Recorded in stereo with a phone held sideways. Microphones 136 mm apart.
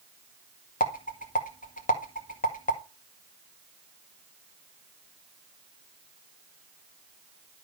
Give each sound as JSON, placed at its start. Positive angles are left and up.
{"t": 0.8, "sound": "a rattle", "side_deg": 80, "distance_m": 1.8}